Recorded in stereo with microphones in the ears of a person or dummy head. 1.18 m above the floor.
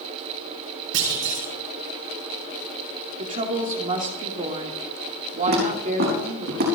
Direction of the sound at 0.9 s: 75° right (ahead or behind).